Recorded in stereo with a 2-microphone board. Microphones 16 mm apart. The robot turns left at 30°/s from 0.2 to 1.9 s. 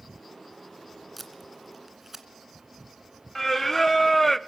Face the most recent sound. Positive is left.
turn(degrees=15)  # may be behind; listen again after turning